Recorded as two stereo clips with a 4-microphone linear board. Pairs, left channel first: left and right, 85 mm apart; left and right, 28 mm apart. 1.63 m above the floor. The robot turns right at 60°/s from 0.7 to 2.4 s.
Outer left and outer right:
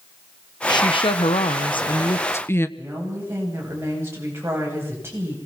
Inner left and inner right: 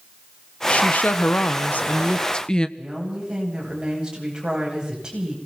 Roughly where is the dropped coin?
I don't hear a dropped coin.